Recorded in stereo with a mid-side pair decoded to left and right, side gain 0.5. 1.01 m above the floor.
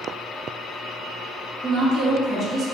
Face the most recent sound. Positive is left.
turn(degrees=-40)